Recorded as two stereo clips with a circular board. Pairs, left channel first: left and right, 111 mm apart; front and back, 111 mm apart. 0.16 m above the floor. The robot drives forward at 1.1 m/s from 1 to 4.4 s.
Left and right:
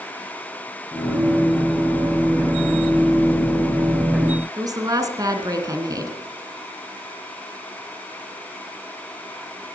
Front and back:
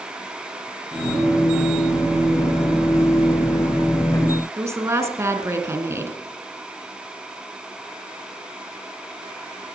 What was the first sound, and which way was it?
A woman speaking, 125° right.